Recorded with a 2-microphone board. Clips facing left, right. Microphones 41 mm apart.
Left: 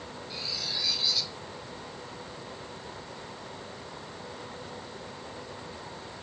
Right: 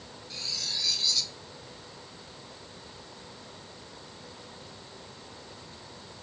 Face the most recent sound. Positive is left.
turn(degrees=10)  # may be behind; listen again after turning